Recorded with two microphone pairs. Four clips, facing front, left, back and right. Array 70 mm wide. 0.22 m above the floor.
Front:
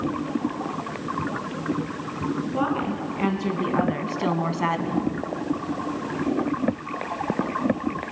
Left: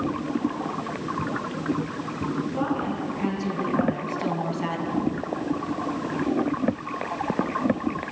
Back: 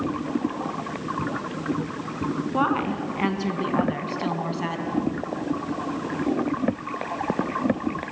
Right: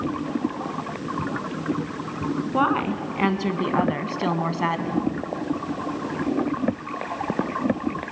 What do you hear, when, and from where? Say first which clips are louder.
2.5 s a woman speaking: right 9 dB, back 4 dB; 115° right, 2.5 m; by 5.1 s 40° right, 2 m